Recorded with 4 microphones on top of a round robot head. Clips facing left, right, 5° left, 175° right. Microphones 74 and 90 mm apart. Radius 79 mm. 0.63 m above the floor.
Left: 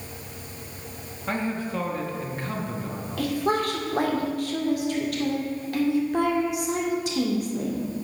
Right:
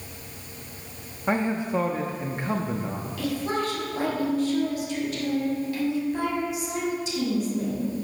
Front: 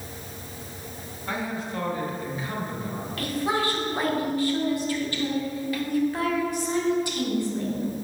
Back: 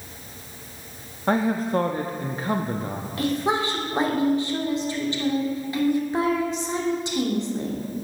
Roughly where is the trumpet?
No trumpet in this recording.